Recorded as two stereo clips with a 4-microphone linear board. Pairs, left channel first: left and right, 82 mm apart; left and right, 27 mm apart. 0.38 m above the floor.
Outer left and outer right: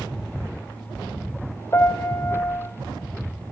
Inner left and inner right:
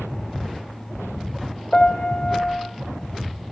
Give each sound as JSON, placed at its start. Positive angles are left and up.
{"t": 1.7, "sound": "a piano", "side_deg": 30, "distance_m": 1.5}